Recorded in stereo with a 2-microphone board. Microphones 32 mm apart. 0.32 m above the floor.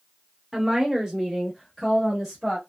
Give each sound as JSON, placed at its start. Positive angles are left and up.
{"t": 0.5, "sound": "a woman speaking", "side_deg": -20, "distance_m": 1.1}